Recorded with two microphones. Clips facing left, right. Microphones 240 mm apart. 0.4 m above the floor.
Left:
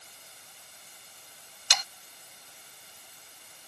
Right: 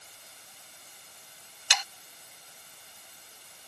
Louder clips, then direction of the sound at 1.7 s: Right 1 dB; 40° left (ahead or behind).